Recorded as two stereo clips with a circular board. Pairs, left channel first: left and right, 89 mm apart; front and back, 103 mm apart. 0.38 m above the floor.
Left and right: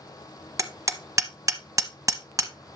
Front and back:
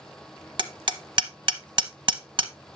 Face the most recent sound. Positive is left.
turn(degrees=-140)